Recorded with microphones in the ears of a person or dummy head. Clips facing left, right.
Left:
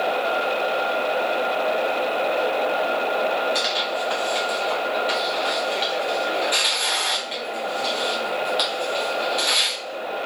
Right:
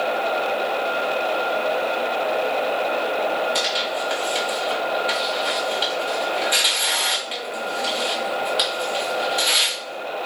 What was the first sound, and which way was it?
Tearing paper, 10° right (ahead or behind).